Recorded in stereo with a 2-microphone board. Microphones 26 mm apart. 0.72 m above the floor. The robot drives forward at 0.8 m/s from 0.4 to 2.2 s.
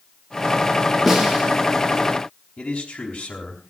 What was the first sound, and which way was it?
A snare drum, centre (ahead or behind).